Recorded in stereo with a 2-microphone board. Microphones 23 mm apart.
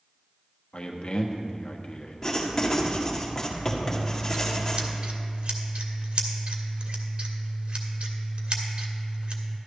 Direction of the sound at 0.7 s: 45° left (ahead or behind).